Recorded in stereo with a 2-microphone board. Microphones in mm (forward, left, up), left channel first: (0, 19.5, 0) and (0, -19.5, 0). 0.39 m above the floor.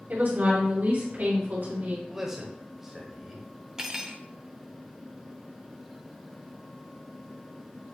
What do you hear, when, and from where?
0.1 s a woman speaking: 60° right (ahead or behind), 2 m; by 2.0 s 55° right (ahead or behind), 3 m
2.1 s a man speaking: 10° right (ahead or behind), 1.2 m
3.8 s cutlery clinking: 15° right (ahead or behind), 0.5 m